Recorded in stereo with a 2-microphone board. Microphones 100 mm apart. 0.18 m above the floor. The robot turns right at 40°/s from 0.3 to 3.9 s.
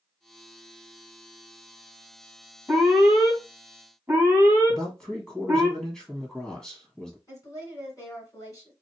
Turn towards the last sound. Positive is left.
turn(degrees=35)  # may be behind; listen again after turning